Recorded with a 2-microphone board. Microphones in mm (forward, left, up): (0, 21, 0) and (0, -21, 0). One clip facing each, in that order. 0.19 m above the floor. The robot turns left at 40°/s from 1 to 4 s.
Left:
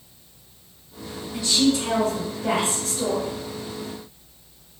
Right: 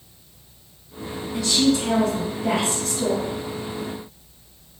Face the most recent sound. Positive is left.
turn(degrees=55)